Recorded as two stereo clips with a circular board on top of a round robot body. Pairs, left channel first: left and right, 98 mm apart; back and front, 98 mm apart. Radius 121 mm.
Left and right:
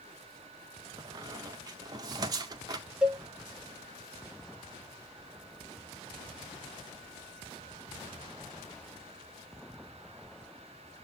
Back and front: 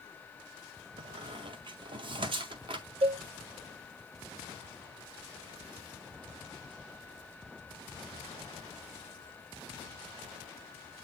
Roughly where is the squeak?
Ahead right.